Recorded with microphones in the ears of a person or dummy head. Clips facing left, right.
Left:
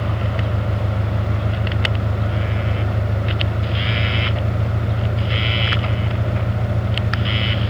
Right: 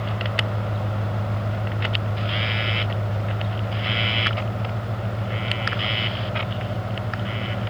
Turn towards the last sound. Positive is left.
turn(degrees=70)  # may be behind; listen again after turning